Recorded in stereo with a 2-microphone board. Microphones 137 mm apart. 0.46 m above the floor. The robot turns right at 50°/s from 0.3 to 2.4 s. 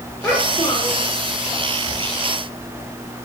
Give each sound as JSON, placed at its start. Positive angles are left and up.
{"t": 0.2, "sound": "a child speaking", "azimuth_deg": 20, "distance_m": 9.0}